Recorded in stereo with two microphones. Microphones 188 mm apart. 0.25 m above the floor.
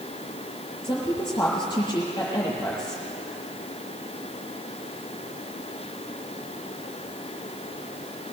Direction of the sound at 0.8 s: 25° left (ahead or behind).